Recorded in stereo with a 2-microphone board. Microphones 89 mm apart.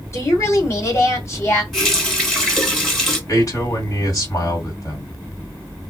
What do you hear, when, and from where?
0.1 s a woman speaking: 35° left (ahead or behind), 1.4 m
1.7 s a running tap: centre (ahead or behind), 1.4 m
3.3 s a man speaking: 40° left (ahead or behind), 1.9 m